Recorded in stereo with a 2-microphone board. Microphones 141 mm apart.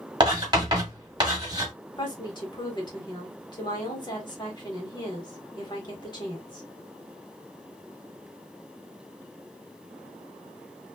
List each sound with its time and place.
0.2 s writing: 30° right (ahead or behind), 1.6 m
2.0 s a woman speaking: 30° left (ahead or behind), 1.4 m